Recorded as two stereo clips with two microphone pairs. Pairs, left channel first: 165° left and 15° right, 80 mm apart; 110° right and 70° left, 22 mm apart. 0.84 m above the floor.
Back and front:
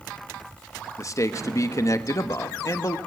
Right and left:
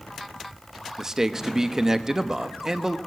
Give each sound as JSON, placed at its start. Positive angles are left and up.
{"t": 1.0, "sound": "a man speaking", "azimuth_deg": 130, "distance_m": 1.2}